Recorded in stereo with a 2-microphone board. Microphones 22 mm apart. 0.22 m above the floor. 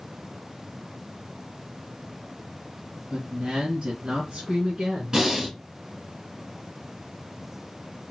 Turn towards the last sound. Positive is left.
turn(degrees=-35)  # may be behind; listen again after turning